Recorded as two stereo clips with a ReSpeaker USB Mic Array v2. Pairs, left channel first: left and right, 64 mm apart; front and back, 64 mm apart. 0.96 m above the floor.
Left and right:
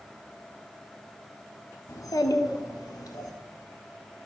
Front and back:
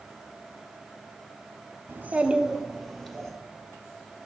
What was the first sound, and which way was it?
A child speaking, 130° left.